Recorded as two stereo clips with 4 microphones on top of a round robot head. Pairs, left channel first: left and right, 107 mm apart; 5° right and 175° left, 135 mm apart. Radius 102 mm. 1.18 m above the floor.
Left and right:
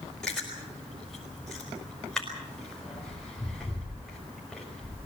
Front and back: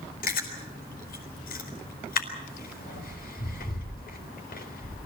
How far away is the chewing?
About 5 m.